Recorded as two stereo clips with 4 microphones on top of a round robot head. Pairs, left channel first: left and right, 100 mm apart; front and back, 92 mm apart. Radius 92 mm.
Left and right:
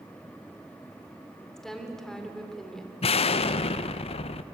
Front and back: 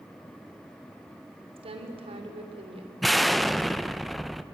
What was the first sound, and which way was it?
A woman speaking, 175° left.